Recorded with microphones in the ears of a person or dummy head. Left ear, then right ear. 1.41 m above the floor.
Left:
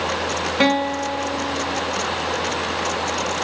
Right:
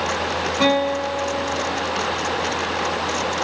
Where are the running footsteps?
No running footsteps in this recording.